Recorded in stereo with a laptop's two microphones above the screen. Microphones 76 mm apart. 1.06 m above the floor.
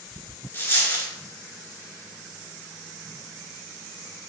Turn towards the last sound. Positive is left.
turn(degrees=30)  # may be behind; listen again after turning